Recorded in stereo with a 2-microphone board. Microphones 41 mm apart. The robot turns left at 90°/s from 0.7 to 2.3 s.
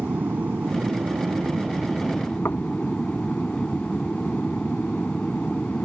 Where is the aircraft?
55° right; by 5.9 s 160° left.